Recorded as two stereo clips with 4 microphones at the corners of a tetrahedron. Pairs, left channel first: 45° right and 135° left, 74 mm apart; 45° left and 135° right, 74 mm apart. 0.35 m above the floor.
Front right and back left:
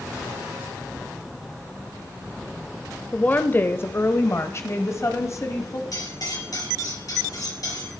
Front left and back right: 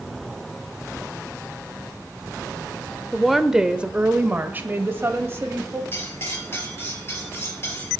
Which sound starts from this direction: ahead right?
A woman speaking, at 3.1 s.